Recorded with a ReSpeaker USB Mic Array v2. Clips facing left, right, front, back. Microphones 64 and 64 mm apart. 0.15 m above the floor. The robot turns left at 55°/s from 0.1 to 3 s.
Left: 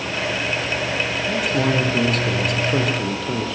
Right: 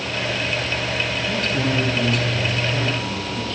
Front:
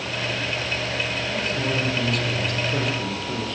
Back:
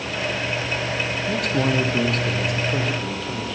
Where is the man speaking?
175° left, 4.5 m; by 3.5 s 80° left, 4.5 m.